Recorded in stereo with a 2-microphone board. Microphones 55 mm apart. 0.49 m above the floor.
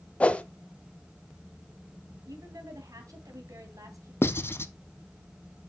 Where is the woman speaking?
70° right (ahead or behind), 3 m.